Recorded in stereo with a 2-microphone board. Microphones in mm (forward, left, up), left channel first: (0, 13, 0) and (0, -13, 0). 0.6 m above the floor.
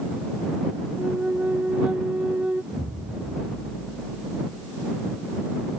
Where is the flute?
55° right (ahead or behind).